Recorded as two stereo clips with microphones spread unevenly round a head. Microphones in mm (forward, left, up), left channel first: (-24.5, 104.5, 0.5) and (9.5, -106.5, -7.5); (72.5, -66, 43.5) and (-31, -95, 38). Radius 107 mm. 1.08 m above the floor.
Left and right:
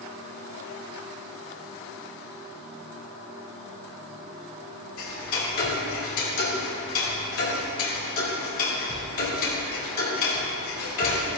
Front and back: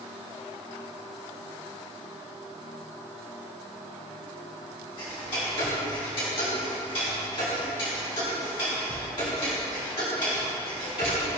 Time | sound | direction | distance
5.0 | ticking | 75° left | 2.5 m